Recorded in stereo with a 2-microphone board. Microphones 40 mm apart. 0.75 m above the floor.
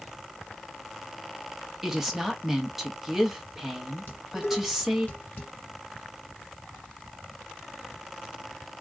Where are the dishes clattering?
50° left (ahead or behind), 1.6 m.